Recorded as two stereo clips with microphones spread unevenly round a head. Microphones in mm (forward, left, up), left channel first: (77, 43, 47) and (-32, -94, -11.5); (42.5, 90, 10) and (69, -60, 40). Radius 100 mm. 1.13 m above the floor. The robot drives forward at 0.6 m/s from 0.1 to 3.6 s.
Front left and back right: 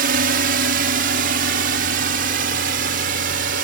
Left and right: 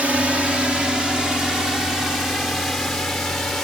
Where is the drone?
165° right; by 3.6 s 170° right.